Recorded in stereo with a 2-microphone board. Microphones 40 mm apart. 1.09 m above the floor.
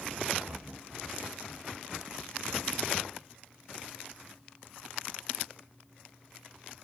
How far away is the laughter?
About 3.5 m.